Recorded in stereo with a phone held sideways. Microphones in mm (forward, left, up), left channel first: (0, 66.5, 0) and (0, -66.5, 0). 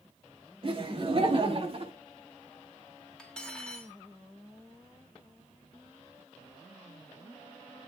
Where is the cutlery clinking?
5° left (ahead or behind), 2 m.